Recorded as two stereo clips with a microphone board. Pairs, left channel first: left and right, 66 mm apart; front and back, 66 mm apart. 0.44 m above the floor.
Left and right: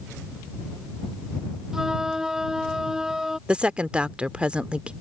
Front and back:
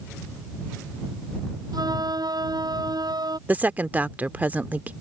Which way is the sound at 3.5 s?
145° right.